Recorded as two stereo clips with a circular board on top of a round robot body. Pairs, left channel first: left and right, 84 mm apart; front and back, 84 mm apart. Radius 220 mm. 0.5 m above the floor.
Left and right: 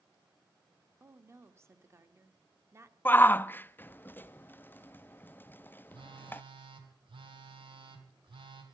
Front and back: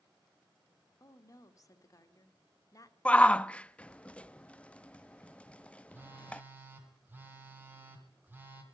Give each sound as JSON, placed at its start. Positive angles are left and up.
{"t": 1.0, "sound": "a woman speaking", "azimuth_deg": -40, "distance_m": 1.6}
{"t": 3.0, "sound": "a shout", "azimuth_deg": 60, "distance_m": 0.6}
{"t": 5.9, "sound": "a phone buzzing", "azimuth_deg": -115, "distance_m": 2.0}